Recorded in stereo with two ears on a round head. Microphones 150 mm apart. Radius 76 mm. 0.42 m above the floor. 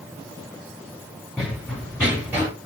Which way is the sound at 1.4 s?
Centre (ahead or behind).